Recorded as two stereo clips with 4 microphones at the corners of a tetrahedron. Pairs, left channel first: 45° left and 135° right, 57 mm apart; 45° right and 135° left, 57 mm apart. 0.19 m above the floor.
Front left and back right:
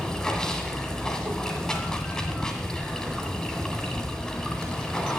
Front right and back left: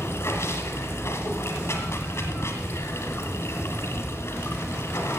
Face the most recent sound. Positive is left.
turn(degrees=-30)